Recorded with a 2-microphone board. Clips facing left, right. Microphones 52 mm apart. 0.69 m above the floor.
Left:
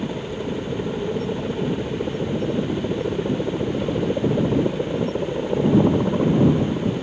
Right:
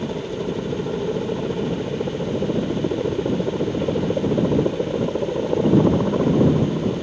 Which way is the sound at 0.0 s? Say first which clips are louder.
Right 1 dB; 10° right (ahead or behind).